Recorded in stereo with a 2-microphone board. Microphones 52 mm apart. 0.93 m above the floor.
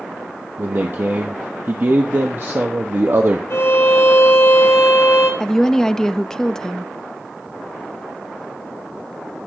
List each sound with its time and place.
0.6 s a man speaking: 50° right (ahead or behind), 1.2 m
3.5 s a violin: 60° left (ahead or behind), 3.5 m
5.4 s a woman speaking: 10° left (ahead or behind), 0.6 m